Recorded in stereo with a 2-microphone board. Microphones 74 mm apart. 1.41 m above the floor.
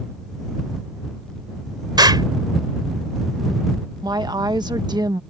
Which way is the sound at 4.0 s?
75° right (ahead or behind).